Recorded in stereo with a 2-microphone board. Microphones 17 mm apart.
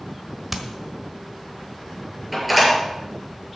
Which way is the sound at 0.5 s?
15° right (ahead or behind).